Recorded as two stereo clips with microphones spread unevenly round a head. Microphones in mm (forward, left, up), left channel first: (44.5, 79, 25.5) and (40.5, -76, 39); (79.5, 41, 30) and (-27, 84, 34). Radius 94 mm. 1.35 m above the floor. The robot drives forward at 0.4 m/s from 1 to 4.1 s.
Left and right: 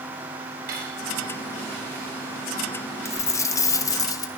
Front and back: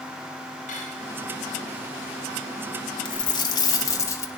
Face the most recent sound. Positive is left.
turn(degrees=30)